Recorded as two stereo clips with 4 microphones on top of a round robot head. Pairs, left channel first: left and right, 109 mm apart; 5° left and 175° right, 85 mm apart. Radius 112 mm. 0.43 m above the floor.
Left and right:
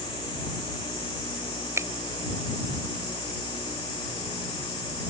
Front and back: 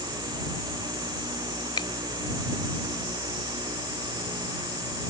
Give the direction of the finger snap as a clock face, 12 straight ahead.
1 o'clock.